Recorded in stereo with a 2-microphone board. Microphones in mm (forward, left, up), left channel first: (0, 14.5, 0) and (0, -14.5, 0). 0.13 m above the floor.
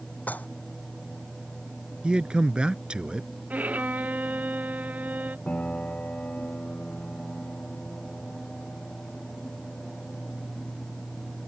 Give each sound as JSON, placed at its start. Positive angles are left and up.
{"t": 0.3, "sound": "dishes clattering", "side_deg": 75}
{"t": 2.0, "sound": "a man speaking", "side_deg": -35}
{"t": 3.5, "sound": "a violin", "side_deg": -75}
{"t": 5.5, "sound": "a piano", "side_deg": 60}